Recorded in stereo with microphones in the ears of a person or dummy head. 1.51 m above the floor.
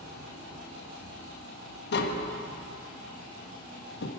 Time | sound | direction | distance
1.9 | tapping | 65° left (ahead or behind) | 1.3 m